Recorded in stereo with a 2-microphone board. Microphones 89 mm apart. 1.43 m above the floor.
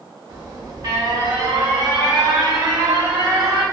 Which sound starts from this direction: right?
An alarm, at 0.3 s.